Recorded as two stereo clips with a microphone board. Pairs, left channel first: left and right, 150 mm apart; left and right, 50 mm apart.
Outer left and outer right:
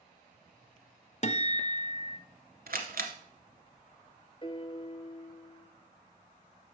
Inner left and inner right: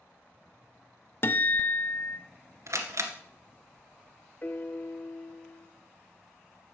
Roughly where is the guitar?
Left.